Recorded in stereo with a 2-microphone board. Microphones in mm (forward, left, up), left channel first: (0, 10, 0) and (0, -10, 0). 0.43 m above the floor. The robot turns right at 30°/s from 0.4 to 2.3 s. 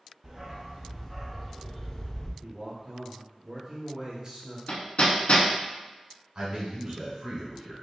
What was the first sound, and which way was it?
A dog barking, 30° right.